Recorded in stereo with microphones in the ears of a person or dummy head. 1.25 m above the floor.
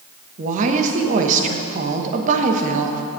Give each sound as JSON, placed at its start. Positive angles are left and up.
{"t": 0.4, "sound": "a woman speaking", "side_deg": -45, "distance_m": 1.0}